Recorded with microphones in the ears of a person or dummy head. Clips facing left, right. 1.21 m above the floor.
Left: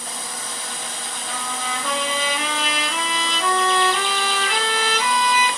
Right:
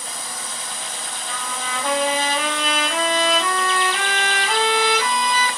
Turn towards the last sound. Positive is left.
turn(degrees=-45)  # may be behind; listen again after turning